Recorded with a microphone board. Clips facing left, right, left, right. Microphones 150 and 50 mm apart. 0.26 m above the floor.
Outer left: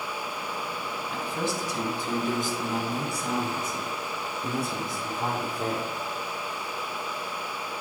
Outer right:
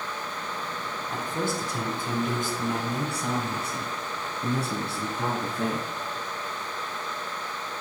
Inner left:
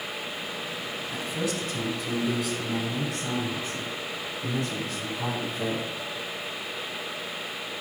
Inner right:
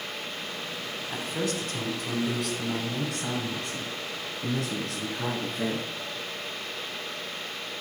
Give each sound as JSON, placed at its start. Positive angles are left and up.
{"t": 1.1, "sound": "a man speaking", "side_deg": -45, "distance_m": 1.5}